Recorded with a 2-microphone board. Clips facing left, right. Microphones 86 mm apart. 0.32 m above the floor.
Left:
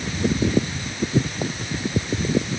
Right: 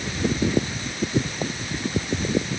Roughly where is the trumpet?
I don't hear a trumpet.